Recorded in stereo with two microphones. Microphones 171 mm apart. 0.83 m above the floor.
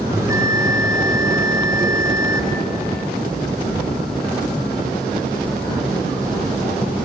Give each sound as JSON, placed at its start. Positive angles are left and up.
{"t": 0.1, "sound": "a bell", "side_deg": -20, "distance_m": 3.0}